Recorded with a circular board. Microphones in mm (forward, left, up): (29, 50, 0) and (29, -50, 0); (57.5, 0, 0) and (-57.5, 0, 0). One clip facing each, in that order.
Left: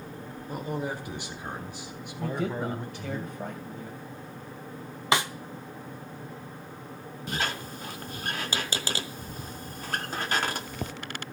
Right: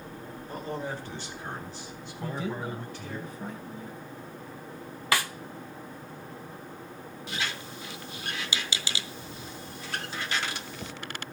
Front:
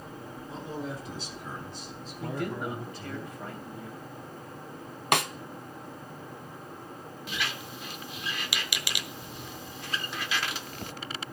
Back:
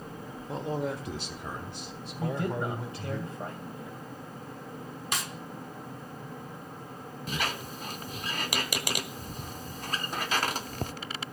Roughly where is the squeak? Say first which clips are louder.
Left 4 dB, back 3 dB; behind left.